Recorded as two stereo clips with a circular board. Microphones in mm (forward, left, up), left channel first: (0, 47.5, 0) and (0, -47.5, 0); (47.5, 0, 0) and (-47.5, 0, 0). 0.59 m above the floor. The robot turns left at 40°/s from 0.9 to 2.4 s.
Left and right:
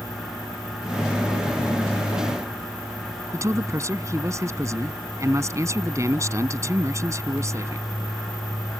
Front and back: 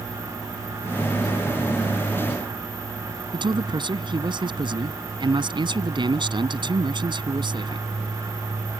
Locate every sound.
3.3 s a man speaking: 145° right